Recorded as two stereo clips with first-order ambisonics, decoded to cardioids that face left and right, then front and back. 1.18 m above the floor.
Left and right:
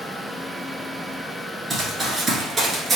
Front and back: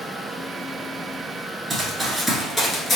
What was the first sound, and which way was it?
Running footsteps, 140° right.